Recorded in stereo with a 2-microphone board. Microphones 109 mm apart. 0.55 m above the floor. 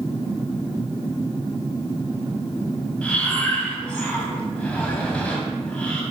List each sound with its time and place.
3.0 s breathing: 10° left (ahead or behind), 3.5 m